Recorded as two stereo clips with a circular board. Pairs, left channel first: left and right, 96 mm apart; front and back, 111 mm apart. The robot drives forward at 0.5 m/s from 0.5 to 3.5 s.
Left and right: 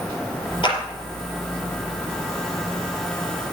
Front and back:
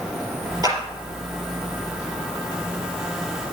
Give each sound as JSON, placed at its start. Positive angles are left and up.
{"t": 0.6, "sound": "a clap", "azimuth_deg": 125, "distance_m": 4.5}